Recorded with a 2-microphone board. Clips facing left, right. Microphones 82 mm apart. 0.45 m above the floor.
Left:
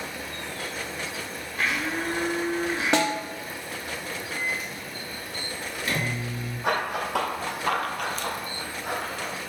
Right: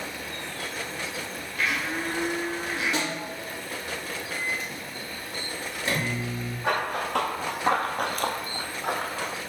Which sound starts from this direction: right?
A microwave, at 4.3 s.